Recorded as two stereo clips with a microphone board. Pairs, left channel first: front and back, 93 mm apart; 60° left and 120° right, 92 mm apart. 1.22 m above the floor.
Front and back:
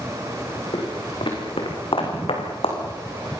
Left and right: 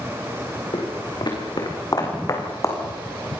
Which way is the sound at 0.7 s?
30° left.